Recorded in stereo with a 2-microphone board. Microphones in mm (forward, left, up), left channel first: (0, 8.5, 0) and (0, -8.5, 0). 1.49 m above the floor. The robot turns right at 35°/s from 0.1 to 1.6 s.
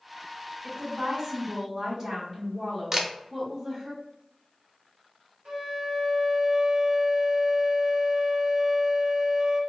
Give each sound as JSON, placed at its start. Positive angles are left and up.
{"t": 0.6, "sound": "a woman speaking", "azimuth_deg": -80, "distance_m": 1.4}
{"t": 2.9, "sound": "a camera shutter", "side_deg": -30, "distance_m": 0.7}
{"t": 5.5, "sound": "a flute", "side_deg": -70, "distance_m": 1.2}